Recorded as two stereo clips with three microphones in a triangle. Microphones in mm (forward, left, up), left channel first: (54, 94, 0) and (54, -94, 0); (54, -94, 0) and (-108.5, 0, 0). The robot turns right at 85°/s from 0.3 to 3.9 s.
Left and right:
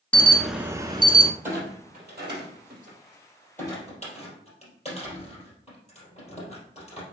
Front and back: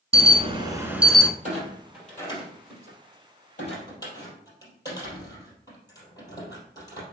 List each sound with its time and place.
0.1 s an alarm: 170° left, 0.9 m; by 1.3 s 105° right, 0.9 m
1.4 s a clunk: 170° right, 3.5 m; by 7.0 s 40° left, 3.5 m